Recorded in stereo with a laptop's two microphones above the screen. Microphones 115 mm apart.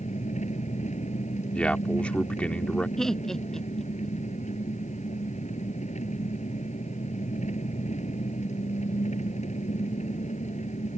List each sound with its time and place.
0.0 s an engine running: 85° left
1.5 s a man speaking: 10° left (ahead or behind)
3.0 s laughter: 5° left (ahead or behind)